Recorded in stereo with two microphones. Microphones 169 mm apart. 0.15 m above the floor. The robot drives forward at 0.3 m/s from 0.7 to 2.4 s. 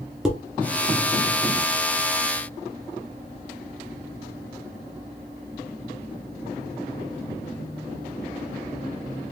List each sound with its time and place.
0.2 s dishes clattering: 5° right (ahead or behind), 1.5 m